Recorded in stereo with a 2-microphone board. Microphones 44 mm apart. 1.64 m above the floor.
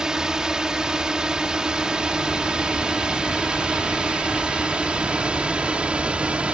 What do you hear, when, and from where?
0.0 s a drone: 15° right (ahead or behind); by 6.5 s 25° right (ahead or behind)